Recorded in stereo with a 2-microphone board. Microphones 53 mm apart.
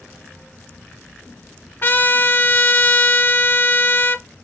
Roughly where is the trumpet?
Left.